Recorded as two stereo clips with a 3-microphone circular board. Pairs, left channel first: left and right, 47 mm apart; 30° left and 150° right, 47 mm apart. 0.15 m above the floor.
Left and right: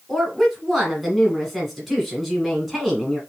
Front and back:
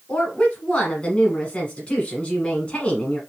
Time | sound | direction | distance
0.1 | a woman speaking | 5° left | 1.2 m